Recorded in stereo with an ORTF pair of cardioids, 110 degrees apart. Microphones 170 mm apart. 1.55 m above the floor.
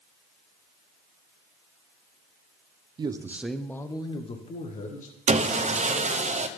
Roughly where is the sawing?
Ahead right.